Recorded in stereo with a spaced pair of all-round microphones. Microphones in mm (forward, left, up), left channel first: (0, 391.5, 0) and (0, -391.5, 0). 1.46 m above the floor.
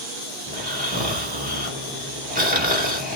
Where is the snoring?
10° right (ahead or behind), 1.1 m.